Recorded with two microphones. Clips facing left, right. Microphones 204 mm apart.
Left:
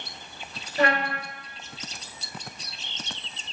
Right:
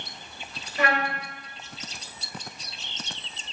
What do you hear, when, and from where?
0.8 s a trumpet: 35° left (ahead or behind), 3 m